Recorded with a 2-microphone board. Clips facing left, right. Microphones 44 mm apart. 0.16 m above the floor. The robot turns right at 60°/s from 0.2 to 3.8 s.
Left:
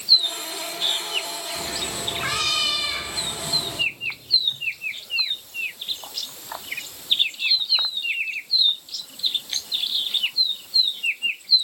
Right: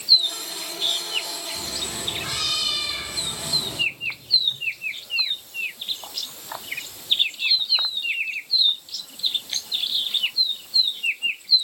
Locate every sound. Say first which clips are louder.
1.6 s a cat meowing: left 2 dB; 50° left, 1.5 m; by 3.8 s 175° right, 1.5 m